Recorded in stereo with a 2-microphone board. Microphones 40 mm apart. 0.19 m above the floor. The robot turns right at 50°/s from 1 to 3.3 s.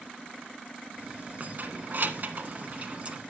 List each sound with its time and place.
1.4 s keys jangling: 40° right (ahead or behind), 1.2 m; by 3.2 s 30° right (ahead or behind), 1.2 m